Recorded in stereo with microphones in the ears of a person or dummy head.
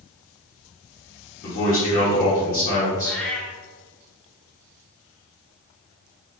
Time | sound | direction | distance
1.4 | a man speaking | 40° left (ahead or behind) | 1.0 m
3.0 | a cat meowing | 5° left (ahead or behind) | 0.7 m